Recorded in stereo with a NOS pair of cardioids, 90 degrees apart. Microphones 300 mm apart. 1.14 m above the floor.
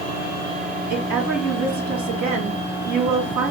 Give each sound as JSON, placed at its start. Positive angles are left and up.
{"t": 0.9, "sound": "a woman speaking", "azimuth_deg": -70, "distance_m": 2.0}